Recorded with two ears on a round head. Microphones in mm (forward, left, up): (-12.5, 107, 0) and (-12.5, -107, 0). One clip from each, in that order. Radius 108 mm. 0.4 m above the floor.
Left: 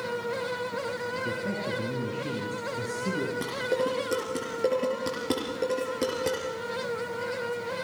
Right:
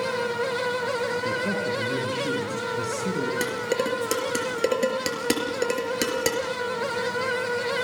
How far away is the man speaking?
About 6 m.